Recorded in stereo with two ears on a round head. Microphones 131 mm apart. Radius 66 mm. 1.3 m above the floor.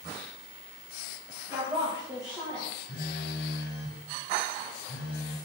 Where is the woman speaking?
10° right (ahead or behind), 1.9 m; by 2.7 s centre (ahead or behind), 1.3 m.